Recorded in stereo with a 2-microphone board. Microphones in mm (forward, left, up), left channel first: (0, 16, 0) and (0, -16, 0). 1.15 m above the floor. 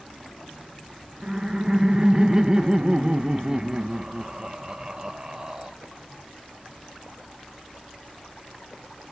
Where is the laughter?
20° right (ahead or behind), 1.2 m.